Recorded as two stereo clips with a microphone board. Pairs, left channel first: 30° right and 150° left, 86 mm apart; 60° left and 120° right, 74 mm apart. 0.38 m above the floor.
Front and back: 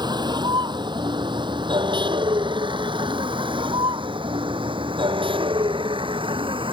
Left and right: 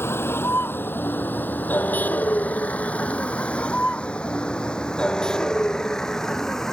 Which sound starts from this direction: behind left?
A vehicle, at 0.0 s.